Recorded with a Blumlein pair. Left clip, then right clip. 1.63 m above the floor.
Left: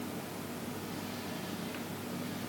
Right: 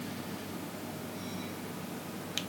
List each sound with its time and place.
Only background noise.